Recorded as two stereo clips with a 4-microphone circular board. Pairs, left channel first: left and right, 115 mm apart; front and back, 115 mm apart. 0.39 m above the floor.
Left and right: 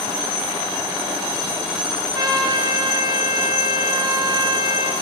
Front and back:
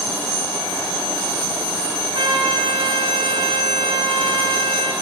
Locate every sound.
2.1 s a trumpet: 140° right, 1.1 m